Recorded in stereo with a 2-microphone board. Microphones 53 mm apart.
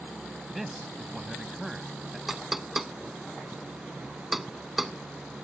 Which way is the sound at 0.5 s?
Centre (ahead or behind).